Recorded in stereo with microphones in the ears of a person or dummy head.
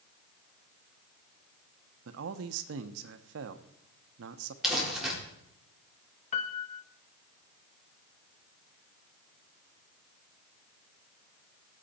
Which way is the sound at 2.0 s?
75° right (ahead or behind).